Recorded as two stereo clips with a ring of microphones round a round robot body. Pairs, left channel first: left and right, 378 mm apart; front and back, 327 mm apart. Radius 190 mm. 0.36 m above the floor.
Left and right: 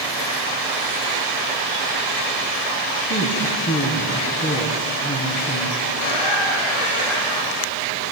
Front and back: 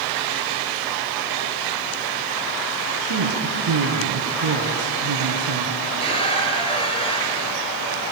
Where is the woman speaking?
160° left, 3.5 m.